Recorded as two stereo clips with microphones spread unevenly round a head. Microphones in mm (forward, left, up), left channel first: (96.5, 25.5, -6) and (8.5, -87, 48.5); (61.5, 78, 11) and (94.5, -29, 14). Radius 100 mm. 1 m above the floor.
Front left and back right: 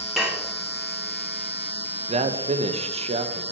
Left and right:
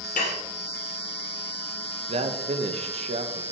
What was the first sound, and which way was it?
Dishes clattering, 150° left.